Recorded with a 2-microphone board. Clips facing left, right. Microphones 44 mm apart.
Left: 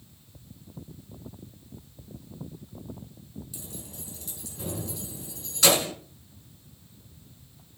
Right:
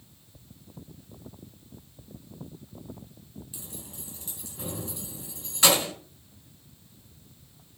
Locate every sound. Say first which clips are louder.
3.5 s keys jangling: left 2 dB; 20° right (ahead or behind), 5.5 m